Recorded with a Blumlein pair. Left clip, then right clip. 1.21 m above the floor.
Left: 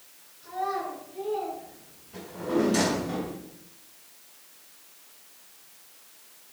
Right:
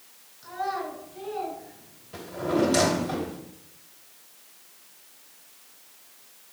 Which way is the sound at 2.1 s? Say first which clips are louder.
Right 2 dB; 70° right.